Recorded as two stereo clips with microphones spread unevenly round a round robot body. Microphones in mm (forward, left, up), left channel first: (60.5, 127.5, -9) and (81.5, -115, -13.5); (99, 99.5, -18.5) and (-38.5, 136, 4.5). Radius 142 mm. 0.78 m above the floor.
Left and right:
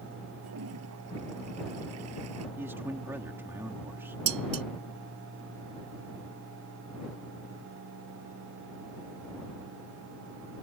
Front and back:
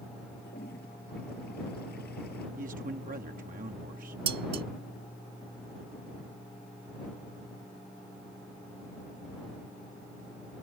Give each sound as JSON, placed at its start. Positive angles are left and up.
{"t": 0.4, "sound": "a toilet flushing", "azimuth_deg": -65}
{"t": 2.6, "sound": "a man speaking", "azimuth_deg": -165}
{"t": 4.3, "sound": "dishes clattering", "azimuth_deg": -155}